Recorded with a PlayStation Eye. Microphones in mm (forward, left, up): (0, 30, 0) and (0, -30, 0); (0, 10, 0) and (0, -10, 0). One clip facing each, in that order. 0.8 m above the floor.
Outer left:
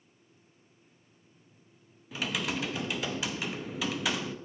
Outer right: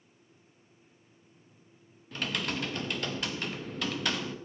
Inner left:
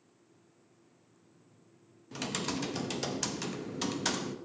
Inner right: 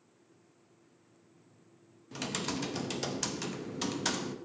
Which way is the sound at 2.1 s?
5° left (ahead or behind).